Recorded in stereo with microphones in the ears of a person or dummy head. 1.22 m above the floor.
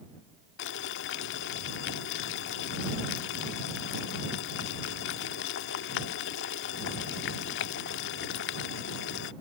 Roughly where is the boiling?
Left.